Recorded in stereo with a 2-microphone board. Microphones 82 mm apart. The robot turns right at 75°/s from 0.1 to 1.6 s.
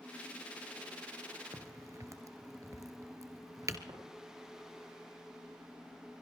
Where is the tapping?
60° right (ahead or behind), 7 m.